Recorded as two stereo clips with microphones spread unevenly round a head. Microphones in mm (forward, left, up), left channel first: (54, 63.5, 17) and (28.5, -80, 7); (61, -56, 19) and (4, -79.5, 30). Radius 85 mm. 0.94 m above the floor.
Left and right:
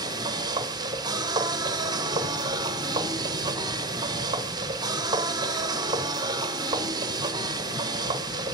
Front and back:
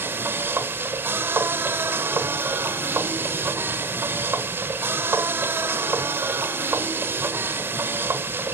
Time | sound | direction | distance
0.0 | a machine running | 120° right | 0.8 m